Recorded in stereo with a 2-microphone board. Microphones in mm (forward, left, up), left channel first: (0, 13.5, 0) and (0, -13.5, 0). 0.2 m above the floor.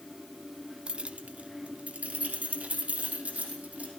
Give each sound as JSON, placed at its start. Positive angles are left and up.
{"t": 0.9, "sound": "keys jangling", "side_deg": -40, "distance_m": 0.9}